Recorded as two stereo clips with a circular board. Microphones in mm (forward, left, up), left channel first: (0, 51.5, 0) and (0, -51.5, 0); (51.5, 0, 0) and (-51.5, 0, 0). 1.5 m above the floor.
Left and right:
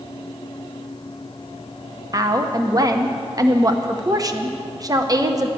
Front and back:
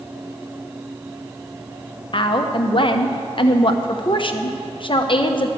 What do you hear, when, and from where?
2.1 s a woman speaking: 35° right, 0.9 m